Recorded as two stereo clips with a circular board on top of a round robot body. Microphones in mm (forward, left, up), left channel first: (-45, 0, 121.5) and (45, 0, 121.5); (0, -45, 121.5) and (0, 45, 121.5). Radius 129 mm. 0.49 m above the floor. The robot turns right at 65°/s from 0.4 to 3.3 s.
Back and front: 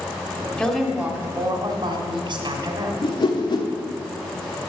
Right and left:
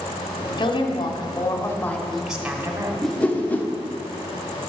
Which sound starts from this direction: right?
A woman speaking, at 0.6 s.